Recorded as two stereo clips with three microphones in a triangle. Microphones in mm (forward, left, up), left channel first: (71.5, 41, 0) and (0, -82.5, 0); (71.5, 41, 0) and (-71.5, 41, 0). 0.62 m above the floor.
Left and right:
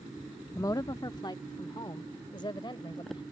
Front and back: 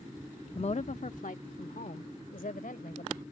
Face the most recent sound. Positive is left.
turn(degrees=5)